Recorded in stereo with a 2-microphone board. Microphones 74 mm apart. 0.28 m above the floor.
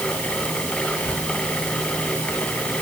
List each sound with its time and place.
0.8 s whispering: 10° left (ahead or behind), 1.5 m